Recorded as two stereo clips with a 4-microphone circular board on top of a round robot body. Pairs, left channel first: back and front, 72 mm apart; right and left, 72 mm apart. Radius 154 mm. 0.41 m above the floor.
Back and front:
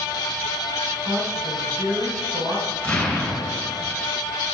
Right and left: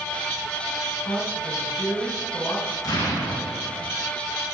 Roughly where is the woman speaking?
Ahead right.